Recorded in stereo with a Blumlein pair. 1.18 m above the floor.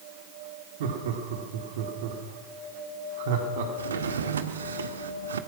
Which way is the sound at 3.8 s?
70° right.